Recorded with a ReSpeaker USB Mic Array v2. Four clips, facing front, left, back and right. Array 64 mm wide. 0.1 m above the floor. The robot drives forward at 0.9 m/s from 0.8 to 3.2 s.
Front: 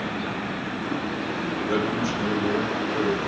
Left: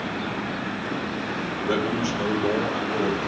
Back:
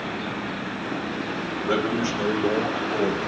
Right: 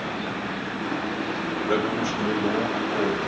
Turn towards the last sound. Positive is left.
turn(degrees=140)